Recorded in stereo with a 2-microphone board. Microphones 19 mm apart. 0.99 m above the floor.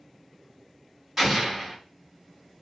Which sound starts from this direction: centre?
An explosion, at 1.2 s.